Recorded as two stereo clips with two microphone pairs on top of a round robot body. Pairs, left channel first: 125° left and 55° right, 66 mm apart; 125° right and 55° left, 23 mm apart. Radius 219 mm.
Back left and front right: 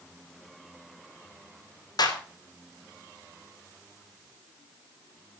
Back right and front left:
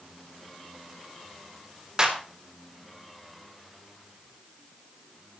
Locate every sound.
2.0 s a clap: 120° left, 4.5 m